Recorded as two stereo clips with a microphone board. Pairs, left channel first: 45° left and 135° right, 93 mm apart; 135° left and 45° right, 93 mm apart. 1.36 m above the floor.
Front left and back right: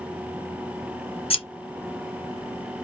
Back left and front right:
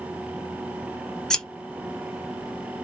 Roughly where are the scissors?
Ahead left.